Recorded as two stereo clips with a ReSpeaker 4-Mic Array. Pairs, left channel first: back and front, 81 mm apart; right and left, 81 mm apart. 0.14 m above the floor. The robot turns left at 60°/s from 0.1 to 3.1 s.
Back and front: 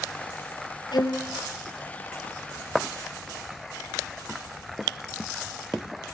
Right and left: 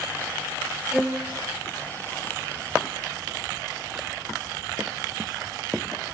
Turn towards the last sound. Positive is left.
turn(degrees=40)